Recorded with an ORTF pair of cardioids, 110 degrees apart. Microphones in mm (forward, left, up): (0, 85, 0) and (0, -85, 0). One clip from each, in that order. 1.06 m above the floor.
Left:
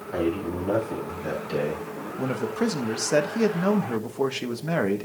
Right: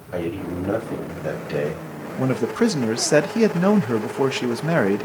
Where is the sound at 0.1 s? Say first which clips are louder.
Even; 45° right, 7 m; by 2.1 s 50° right, 5.5 m.